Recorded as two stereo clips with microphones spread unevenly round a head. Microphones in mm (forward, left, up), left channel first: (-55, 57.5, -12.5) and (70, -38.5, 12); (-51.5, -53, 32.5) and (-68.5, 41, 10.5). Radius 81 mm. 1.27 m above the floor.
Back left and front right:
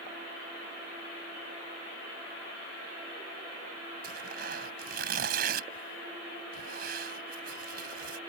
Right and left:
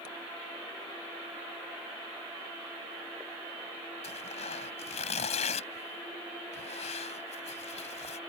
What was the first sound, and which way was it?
Tearing paper, 70° right.